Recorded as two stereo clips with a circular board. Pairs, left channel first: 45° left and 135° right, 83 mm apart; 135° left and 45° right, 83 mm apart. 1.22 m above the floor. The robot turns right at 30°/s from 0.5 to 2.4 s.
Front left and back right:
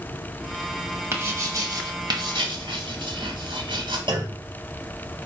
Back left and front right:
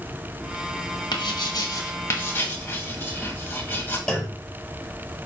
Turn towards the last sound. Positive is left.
turn(degrees=-135)